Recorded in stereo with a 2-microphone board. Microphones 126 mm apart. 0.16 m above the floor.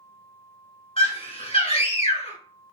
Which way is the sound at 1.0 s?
50° left (ahead or behind).